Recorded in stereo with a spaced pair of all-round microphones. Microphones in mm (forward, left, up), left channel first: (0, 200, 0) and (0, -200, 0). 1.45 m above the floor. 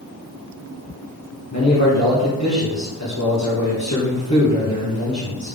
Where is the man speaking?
45° left (ahead or behind), 1.5 m.